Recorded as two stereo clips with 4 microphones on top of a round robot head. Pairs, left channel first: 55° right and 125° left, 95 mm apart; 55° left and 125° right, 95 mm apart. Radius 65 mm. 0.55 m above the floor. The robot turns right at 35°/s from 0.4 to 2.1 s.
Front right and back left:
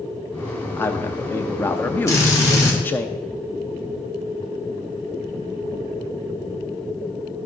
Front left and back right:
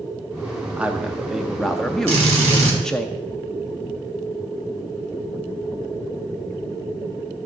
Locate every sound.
0.8 s a man speaking: 70° right, 0.6 m; by 3.1 s 20° right, 0.6 m
2.1 s a drill: 115° right, 2.5 m